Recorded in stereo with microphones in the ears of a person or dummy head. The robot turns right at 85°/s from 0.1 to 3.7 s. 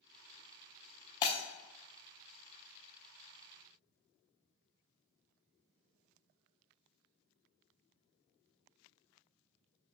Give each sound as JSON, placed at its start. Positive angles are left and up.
{"t": 1.2, "sound": "breaking glass", "side_deg": 25, "distance_m": 0.6}